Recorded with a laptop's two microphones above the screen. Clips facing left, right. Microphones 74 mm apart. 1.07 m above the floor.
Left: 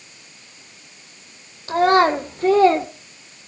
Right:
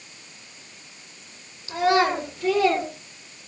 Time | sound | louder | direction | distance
1.7 | a child speaking | left 5 dB | 50° left (ahead or behind) | 2.5 m